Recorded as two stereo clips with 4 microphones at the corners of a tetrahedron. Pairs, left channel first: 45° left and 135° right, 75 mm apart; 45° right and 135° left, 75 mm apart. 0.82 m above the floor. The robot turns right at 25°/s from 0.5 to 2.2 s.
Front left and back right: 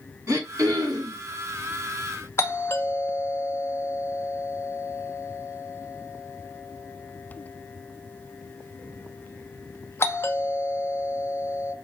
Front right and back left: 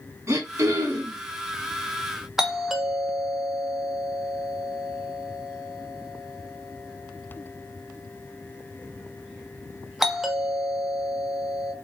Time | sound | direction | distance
0.3 | throat clearing | straight behind | 2 m
2.4 | a doorbell | 55° left | 0.9 m